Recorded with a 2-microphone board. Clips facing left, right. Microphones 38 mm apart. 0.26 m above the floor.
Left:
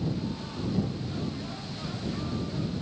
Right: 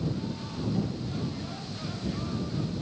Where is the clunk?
I don't hear a clunk.